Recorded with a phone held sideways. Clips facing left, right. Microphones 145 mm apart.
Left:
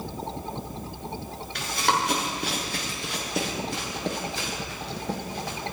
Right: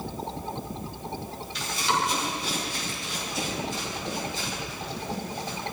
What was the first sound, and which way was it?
Running footsteps, 60° left (ahead or behind).